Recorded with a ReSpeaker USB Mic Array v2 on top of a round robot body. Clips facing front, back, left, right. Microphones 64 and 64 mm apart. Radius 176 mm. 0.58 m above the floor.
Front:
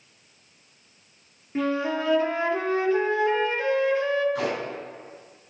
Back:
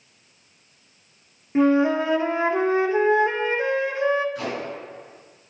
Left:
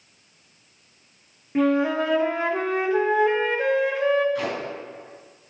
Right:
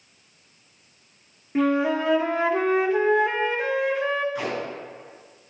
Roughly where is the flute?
Behind.